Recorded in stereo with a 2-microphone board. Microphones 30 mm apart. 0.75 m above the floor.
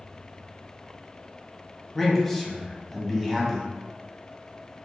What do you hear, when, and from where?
1.9 s a man speaking: 5° left (ahead or behind), 0.9 m